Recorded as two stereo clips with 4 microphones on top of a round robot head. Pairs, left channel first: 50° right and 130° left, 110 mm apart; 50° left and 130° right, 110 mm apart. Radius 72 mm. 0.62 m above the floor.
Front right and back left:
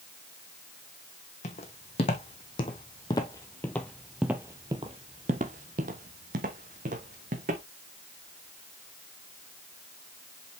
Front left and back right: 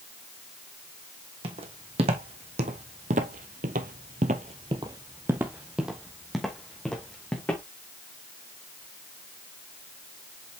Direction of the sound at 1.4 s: 90° right.